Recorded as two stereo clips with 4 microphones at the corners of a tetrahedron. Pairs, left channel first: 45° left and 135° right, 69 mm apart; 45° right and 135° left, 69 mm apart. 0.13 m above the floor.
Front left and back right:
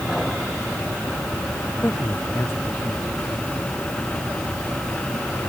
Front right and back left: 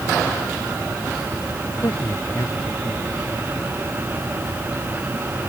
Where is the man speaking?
10° right.